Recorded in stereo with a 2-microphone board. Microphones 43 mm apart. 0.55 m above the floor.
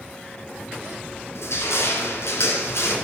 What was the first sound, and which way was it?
Crushing, 80° left.